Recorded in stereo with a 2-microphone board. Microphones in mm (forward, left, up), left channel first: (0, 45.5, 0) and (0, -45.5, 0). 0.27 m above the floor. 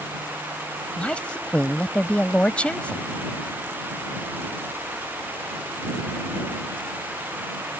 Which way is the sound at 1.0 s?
15° left (ahead or behind).